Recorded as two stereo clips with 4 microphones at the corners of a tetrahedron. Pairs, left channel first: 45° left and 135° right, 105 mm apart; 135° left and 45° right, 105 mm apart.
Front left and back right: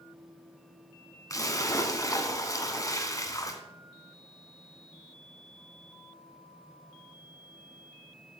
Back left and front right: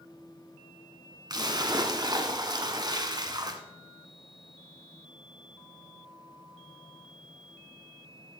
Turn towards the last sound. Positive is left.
turn(degrees=-5)